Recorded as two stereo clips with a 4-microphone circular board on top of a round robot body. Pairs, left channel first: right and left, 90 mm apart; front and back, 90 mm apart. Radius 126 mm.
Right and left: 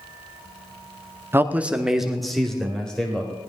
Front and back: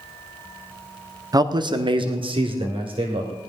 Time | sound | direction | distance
1.3 | a man speaking | 150° left | 0.9 m